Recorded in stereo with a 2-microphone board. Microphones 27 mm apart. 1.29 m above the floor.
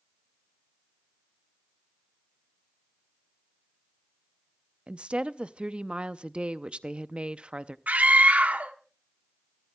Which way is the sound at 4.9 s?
40° right (ahead or behind).